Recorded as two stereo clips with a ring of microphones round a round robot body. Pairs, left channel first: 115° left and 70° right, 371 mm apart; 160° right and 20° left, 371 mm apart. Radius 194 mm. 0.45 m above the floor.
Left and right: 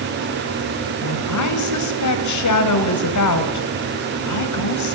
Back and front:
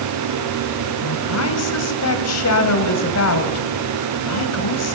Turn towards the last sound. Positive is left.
turn(degrees=155)